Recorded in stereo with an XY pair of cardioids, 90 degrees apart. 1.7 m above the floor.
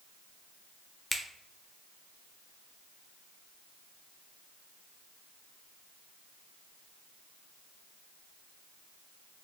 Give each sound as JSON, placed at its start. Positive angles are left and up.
{"t": 1.1, "sound": "a finger snap", "azimuth_deg": 15, "distance_m": 0.6}